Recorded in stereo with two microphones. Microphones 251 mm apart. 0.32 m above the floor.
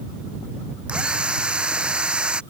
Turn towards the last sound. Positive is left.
turn(degrees=-5)  # may be behind; listen again after turning